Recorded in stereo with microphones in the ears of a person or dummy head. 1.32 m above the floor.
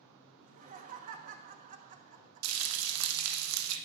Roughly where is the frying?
Right.